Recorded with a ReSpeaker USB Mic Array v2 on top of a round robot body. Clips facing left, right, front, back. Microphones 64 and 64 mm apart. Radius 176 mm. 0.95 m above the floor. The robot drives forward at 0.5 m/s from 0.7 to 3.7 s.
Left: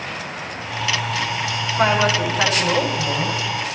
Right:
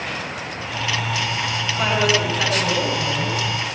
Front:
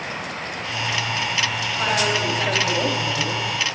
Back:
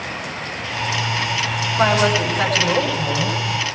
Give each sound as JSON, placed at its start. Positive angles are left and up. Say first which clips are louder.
{"t": 1.8, "sound": "a woman speaking", "louder": "left 2 dB, back 6 dB", "azimuth_deg": 140, "distance_m": 9.0}